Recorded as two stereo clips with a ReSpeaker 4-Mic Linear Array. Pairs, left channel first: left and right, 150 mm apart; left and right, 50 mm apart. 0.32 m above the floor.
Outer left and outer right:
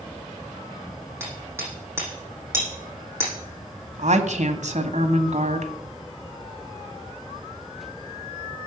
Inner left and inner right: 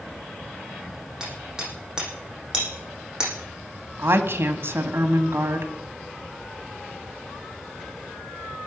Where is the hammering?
15° right (ahead or behind), 9 m.